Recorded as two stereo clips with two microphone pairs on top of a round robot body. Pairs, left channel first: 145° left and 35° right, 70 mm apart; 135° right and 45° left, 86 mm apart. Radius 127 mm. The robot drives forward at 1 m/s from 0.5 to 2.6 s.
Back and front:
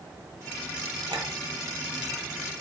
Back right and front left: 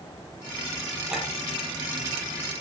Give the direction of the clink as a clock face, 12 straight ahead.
1 o'clock.